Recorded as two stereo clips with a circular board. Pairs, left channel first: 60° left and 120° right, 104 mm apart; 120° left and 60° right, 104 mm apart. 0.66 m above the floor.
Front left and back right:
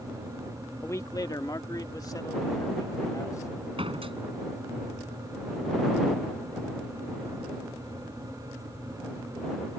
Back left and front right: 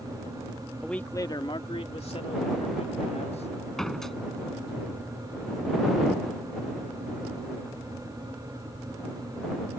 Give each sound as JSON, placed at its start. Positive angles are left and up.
{"t": 0.8, "sound": "a man speaking", "azimuth_deg": 30}
{"t": 3.8, "sound": "a door slam", "azimuth_deg": -155}